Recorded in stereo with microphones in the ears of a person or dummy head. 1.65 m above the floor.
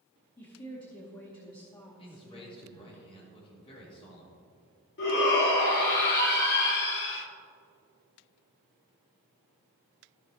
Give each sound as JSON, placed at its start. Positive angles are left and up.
{"t": 0.4, "sound": "a woman speaking", "side_deg": 20, "distance_m": 1.0}
{"t": 2.0, "sound": "a man speaking", "side_deg": 30, "distance_m": 3.0}
{"t": 5.0, "sound": "a shout", "side_deg": 65, "distance_m": 2.0}